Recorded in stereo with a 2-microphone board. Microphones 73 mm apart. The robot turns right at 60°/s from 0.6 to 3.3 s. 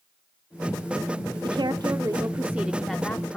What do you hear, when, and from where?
1.4 s a woman speaking: 90° right, 0.6 m; by 3.4 s 25° left, 0.6 m